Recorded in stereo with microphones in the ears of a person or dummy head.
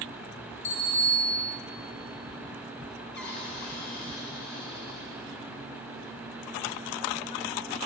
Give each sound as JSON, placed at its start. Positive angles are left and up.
{"t": 0.6, "sound": "a bicycle bell", "side_deg": 70, "distance_m": 5.5}
{"t": 3.1, "sound": "a cupboard door", "side_deg": 70, "distance_m": 3.5}